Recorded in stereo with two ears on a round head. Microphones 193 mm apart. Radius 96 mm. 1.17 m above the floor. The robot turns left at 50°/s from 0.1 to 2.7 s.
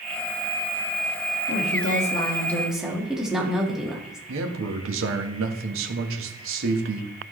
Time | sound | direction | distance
1.5 | a woman speaking | 60° left | 1.9 m
4.3 | a man speaking | 65° right (ahead or behind) | 1.4 m